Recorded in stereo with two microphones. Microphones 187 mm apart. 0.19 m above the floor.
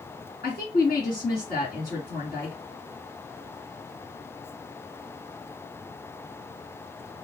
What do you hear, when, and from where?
0.4 s a woman speaking: 50° left (ahead or behind), 2.5 m